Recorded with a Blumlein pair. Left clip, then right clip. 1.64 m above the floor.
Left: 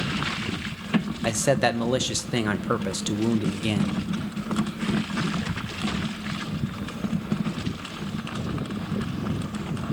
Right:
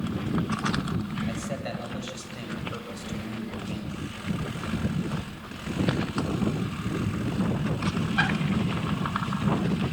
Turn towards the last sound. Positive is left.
turn(degrees=45)